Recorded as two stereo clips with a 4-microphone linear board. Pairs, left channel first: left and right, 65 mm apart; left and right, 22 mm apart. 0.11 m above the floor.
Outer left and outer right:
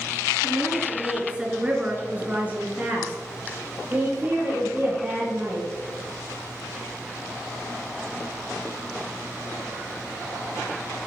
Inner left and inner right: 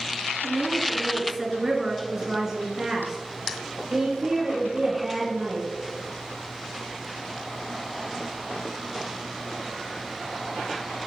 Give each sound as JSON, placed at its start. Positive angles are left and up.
{"t": 0.4, "sound": "a woman speaking", "side_deg": 0, "distance_m": 1.6}